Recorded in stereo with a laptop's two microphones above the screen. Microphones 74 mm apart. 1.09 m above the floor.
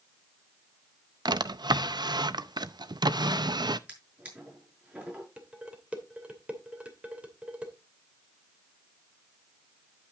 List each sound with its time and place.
1.2 s a drawer: 70° right (ahead or behind), 0.5 m
3.9 s a drawer: 20° right (ahead or behind), 6 m
5.4 s dishes clattering: 15° right (ahead or behind), 2.5 m